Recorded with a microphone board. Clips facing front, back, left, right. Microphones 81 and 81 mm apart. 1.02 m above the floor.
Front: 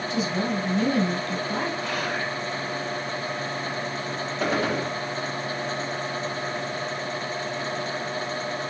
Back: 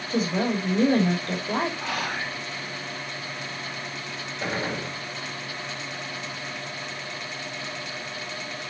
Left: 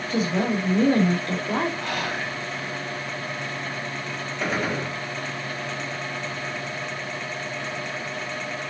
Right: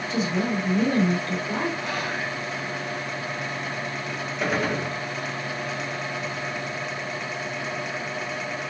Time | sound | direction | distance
0.1 | a woman speaking | 130° left | 2.5 m
1.8 | whispering | 90° left | 4.5 m
4.4 | a gunshot | straight ahead | 2 m